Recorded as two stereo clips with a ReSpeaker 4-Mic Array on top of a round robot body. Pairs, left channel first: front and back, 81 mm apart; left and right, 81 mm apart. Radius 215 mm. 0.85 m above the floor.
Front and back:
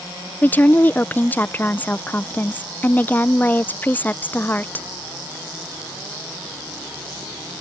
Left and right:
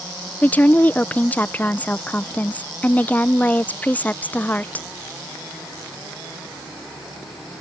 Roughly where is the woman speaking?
Ahead left.